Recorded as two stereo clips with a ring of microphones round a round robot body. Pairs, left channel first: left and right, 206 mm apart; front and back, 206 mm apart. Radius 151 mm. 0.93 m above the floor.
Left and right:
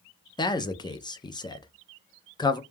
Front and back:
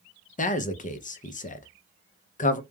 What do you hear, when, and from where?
0.4 s a man speaking: 30° left, 0.6 m